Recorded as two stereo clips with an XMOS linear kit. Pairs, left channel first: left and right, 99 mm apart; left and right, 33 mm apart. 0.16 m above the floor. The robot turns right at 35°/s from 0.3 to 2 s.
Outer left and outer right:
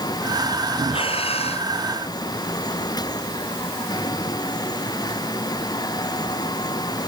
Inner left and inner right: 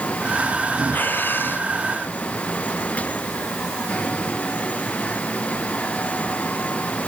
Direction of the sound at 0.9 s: 65° left (ahead or behind).